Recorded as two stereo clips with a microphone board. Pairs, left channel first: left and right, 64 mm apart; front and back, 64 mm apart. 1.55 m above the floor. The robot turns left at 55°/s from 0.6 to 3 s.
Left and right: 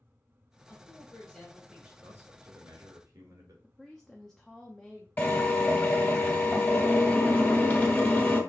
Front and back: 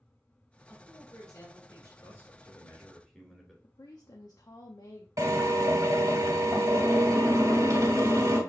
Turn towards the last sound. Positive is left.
turn(degrees=145)